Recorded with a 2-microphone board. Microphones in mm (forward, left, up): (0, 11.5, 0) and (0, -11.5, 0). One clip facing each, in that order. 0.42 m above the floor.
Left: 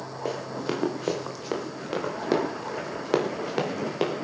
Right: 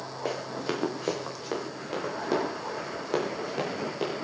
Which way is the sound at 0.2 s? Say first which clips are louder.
Left 1 dB; 10° right (ahead or behind).